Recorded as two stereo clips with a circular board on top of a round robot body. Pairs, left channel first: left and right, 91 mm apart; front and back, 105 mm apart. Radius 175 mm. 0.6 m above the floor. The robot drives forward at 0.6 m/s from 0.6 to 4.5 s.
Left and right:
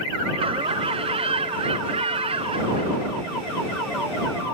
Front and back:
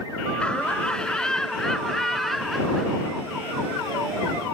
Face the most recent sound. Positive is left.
turn(degrees=-95)